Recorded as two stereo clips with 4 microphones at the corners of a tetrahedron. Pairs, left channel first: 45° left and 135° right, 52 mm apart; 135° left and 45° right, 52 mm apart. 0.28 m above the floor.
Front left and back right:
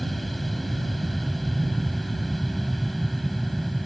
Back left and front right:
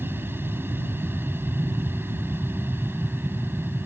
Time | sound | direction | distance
0.0 | an aircraft | 45° right | ?